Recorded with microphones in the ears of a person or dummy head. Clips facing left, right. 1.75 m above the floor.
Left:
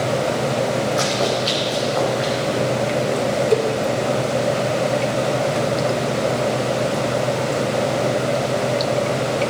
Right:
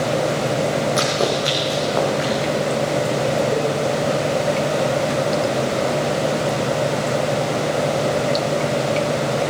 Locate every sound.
1.0 s running footsteps: 35° right (ahead or behind), 3.5 m
3.5 s a cowbell: 30° left (ahead or behind), 1.4 m